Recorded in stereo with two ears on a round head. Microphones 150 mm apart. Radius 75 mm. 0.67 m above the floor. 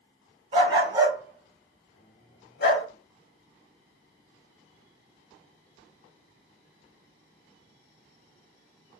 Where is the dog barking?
35° right (ahead or behind), 1.1 m; by 2.9 s 65° left (ahead or behind), 1.0 m.